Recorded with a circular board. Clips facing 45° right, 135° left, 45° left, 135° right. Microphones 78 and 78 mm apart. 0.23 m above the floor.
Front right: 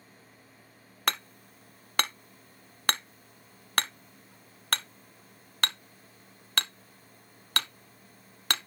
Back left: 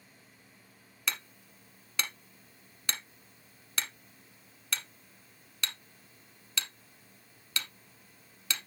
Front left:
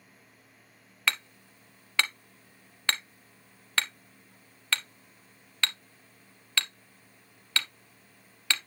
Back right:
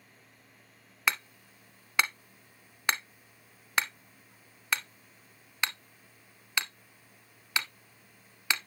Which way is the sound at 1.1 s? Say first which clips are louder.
Front right 6 dB, even; 60° right.